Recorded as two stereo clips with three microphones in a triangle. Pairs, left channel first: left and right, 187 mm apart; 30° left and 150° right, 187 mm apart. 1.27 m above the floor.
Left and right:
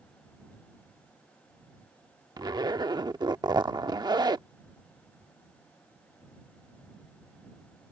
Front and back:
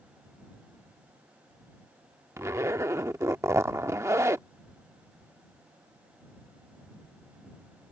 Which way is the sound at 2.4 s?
100° right.